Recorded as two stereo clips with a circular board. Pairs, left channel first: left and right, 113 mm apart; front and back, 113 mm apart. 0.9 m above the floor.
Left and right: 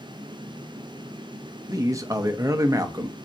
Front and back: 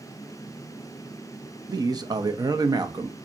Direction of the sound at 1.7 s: 140° right.